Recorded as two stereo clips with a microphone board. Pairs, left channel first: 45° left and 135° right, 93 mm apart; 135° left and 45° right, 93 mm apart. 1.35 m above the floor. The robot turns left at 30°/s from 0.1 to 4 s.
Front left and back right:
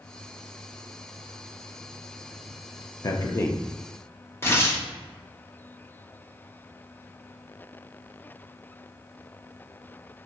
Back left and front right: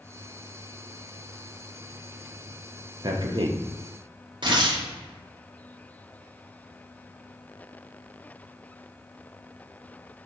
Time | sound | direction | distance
3.0 | a man speaking | 5° right | 0.5 m
4.4 | tearing paper | 15° right | 0.7 m